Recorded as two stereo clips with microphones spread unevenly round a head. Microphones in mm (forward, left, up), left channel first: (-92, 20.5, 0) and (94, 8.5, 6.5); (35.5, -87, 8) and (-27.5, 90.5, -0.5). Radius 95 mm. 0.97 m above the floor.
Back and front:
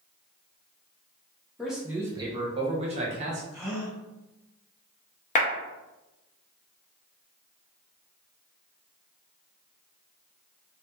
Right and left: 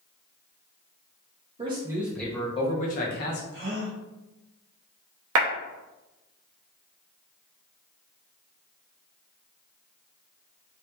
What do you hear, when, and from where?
1.6 s a man speaking: 90° left, 0.6 m; by 3.4 s 55° right, 0.9 m
3.5 s a gasp: 75° left, 1.6 m
5.3 s a clap: 120° left, 0.6 m